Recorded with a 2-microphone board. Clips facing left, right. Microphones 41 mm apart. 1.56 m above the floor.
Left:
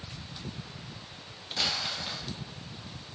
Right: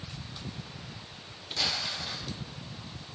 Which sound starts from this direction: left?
Crumpling, at 1.6 s.